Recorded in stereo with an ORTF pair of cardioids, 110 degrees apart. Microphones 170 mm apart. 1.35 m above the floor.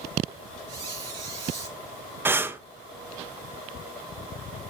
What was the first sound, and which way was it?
A squeak, 25° right.